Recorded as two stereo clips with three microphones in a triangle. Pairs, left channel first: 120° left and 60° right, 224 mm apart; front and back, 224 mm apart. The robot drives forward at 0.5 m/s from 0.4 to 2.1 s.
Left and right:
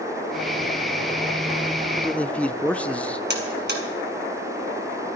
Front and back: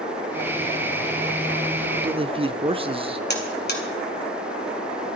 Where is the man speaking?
155° right, 0.7 m; by 3.2 s 165° right, 0.7 m.